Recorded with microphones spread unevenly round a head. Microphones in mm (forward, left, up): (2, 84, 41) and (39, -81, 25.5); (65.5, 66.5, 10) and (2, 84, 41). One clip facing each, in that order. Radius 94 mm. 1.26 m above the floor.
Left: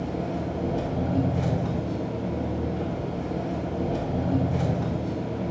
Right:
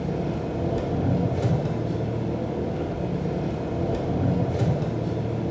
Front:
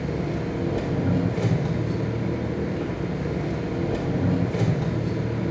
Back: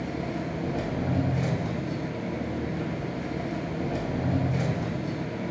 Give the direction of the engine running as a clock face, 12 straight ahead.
1 o'clock.